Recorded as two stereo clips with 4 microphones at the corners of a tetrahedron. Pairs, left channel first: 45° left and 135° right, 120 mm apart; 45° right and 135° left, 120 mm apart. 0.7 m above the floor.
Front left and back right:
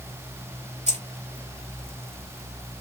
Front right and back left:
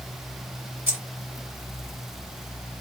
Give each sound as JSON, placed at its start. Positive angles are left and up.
{"t": 0.9, "sound": "keys jangling", "azimuth_deg": -155, "distance_m": 1.7}